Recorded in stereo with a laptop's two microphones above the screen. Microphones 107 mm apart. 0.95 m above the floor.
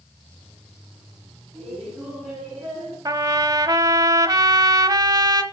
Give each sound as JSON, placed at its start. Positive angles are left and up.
{"t": 1.5, "sound": "laughter", "side_deg": -15, "distance_m": 7.5}
{"t": 3.0, "sound": "a trumpet", "side_deg": -35, "distance_m": 1.2}